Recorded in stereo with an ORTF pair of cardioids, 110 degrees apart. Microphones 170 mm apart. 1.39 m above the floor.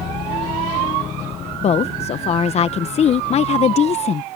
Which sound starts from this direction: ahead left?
A woman speaking, at 1.6 s.